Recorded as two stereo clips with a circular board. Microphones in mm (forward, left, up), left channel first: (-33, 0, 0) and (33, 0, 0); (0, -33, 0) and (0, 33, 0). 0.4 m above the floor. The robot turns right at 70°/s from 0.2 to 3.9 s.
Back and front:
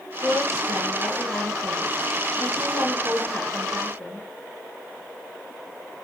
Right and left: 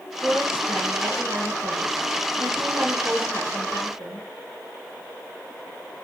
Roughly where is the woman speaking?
Ahead.